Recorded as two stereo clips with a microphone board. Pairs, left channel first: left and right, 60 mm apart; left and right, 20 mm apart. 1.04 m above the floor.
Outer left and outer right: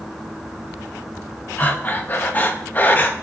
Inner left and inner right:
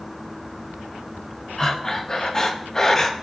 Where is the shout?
I don't hear a shout.